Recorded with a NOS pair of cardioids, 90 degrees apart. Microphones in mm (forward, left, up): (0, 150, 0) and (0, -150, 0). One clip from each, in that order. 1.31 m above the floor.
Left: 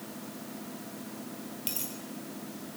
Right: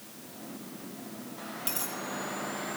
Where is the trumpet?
I don't hear a trumpet.